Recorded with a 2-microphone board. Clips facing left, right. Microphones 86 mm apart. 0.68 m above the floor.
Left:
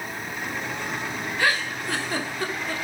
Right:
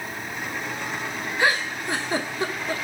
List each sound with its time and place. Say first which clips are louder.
1.4 s a giggle: right 2 dB; 20° right (ahead or behind), 1.5 m